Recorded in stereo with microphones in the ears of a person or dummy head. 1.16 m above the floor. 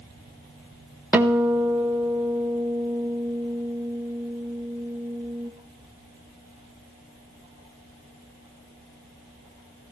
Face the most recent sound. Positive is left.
turn(degrees=-10)  # may be behind; listen again after turning